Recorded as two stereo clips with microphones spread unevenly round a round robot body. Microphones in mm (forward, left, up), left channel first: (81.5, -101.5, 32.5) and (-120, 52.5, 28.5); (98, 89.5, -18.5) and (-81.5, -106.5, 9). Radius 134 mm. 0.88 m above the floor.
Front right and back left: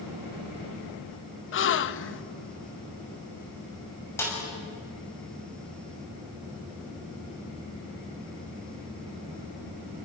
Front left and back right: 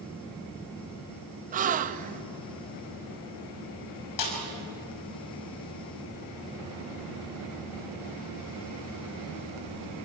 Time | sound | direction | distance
1.5 | a gasp | 70° right | 0.9 m
4.2 | a snare drum | 45° left | 6 m